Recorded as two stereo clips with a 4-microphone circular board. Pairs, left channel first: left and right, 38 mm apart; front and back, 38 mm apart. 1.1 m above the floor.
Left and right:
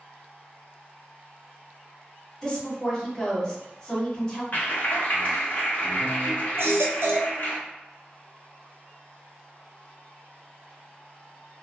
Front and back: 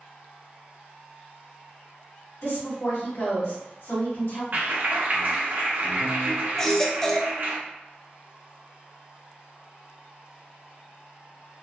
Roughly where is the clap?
Behind left.